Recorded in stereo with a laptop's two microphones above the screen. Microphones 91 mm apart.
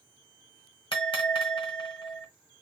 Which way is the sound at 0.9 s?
65° left (ahead or behind).